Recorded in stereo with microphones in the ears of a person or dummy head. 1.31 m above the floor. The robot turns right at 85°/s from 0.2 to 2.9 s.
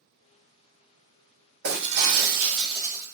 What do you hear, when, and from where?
1.6 s breaking glass: 120° right, 1.0 m; by 3.1 s 10° right, 1.0 m